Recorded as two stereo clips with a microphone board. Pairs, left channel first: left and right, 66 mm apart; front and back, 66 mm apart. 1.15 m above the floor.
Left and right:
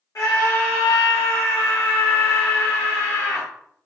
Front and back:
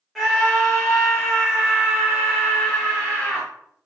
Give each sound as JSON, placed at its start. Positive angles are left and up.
{"t": 0.1, "sound": "a scream", "azimuth_deg": 90, "distance_m": 0.6}